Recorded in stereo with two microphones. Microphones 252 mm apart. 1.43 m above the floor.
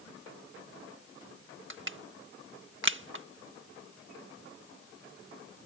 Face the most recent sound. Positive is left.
turn(degrees=-45)  # may be behind; listen again after turning